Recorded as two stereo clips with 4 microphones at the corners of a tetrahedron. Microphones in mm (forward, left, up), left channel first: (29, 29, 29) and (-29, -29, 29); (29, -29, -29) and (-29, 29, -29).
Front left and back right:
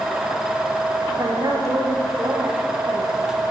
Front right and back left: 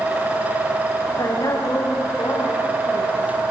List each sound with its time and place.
1.1 s a woman speaking: 85° right, 7.5 m